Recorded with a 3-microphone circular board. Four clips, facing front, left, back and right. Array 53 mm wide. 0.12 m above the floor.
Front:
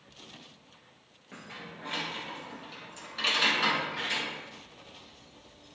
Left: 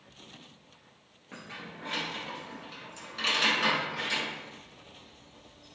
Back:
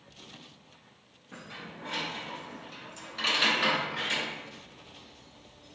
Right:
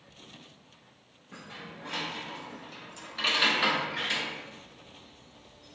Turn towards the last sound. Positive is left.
turn(degrees=-110)